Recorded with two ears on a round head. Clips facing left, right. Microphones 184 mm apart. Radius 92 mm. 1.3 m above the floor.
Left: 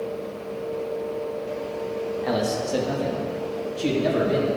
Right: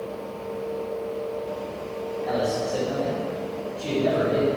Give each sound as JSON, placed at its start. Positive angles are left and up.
{"t": 2.2, "sound": "a man speaking", "side_deg": 80, "distance_m": 1.9}